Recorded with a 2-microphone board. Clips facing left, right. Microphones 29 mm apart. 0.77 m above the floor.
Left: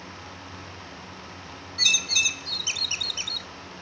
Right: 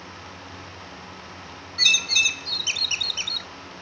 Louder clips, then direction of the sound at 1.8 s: Right 3 dB; 20° right (ahead or behind).